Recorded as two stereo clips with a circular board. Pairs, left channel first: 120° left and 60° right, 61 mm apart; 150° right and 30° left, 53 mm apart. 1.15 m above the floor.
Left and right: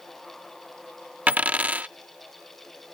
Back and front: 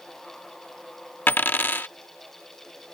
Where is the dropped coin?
115° right.